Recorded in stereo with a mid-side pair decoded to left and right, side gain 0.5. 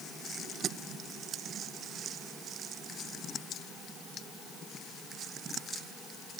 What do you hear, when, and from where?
Only background noise.